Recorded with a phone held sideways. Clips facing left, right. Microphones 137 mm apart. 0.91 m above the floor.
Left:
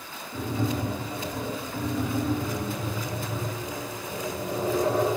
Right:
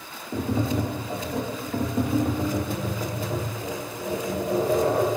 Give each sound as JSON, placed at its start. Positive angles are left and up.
{"t": 0.3, "sound": "tapping", "side_deg": -55, "distance_m": 0.9}